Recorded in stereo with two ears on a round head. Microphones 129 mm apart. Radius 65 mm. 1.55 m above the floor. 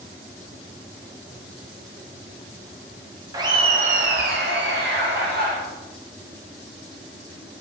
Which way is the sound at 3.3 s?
20° right (ahead or behind).